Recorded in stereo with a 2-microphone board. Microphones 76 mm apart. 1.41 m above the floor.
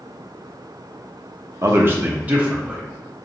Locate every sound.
1.6 s a man speaking: 40° right (ahead or behind), 0.7 m; by 2.8 s 15° right (ahead or behind), 1.3 m